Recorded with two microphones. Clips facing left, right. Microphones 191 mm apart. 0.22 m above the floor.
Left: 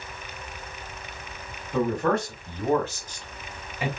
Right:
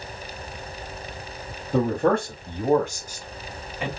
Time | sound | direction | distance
1.7 | a man speaking | 40° right (ahead or behind) | 1.2 m